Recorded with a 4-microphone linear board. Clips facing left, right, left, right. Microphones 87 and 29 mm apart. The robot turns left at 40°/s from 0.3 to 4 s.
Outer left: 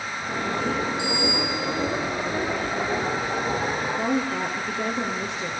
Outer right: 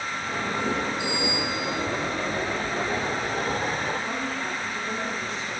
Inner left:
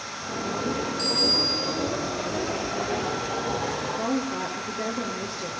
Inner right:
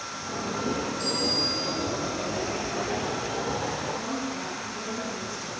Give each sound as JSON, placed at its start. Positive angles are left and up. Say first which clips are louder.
{"t": 1.0, "sound": "a bicycle bell", "louder": "outer left 2 dB, inner left 5 dB", "azimuth_deg": 95, "distance_m": 3.0}
{"t": 4.0, "sound": "a woman speaking", "louder": "outer left 5 dB, inner left 4 dB", "side_deg": 65, "distance_m": 2.0}